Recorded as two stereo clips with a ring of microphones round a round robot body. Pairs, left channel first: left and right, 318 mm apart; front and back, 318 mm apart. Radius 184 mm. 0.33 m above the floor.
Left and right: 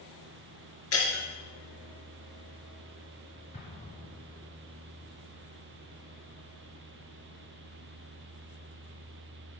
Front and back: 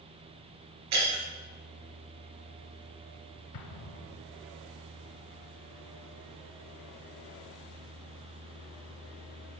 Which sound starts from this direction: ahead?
An explosion, at 3.5 s.